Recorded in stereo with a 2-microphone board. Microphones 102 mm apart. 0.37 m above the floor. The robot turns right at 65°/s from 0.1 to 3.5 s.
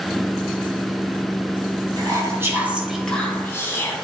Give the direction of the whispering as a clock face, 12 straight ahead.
2 o'clock.